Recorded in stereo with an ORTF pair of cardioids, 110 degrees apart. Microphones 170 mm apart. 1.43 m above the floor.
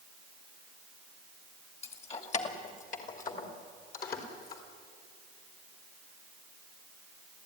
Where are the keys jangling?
35° left, 2 m; by 4.6 s 60° left, 4 m.